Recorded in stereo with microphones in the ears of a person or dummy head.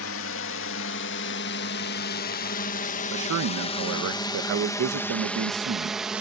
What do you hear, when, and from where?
0.0 s a drone: 65° left (ahead or behind); by 6.2 s 5° right (ahead or behind)
3.1 s a man speaking: 70° right (ahead or behind)